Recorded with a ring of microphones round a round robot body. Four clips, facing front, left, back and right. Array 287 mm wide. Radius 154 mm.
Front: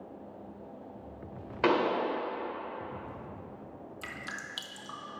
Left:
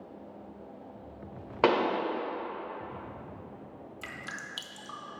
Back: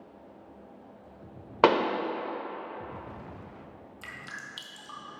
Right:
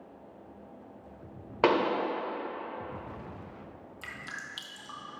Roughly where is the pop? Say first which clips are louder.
Even, back 4 dB; behind.